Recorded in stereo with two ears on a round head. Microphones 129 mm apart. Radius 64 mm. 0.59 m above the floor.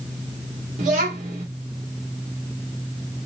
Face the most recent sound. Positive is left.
turn(degrees=-55)  # may be behind; listen again after turning